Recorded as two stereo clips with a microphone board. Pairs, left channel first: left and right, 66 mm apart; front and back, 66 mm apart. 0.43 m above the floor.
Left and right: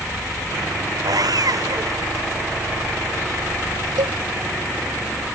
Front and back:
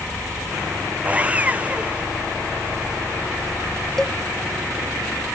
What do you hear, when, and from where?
1.1 s sawing: 110° right
4.0 s a cowbell: 85° right